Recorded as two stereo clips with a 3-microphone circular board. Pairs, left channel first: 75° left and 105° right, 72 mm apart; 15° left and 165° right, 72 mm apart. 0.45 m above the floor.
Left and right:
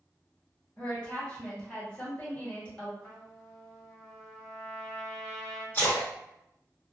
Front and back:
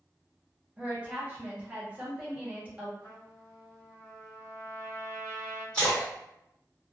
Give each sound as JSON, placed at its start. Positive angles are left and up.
{"t": 0.8, "sound": "a woman speaking", "azimuth_deg": 135, "distance_m": 1.2}
{"t": 3.0, "sound": "a trumpet", "azimuth_deg": 5, "distance_m": 1.4}
{"t": 5.7, "sound": "a splash", "azimuth_deg": 85, "distance_m": 1.4}